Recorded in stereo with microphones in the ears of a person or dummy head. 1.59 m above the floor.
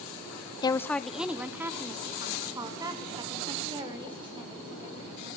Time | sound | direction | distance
0.6 | a woman speaking | 25° left (ahead or behind) | 0.6 m